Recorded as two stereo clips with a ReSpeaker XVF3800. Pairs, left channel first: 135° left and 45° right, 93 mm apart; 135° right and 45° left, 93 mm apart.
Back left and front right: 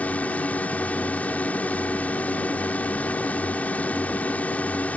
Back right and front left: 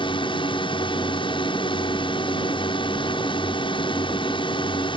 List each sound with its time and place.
0.0 s a drone: 150° right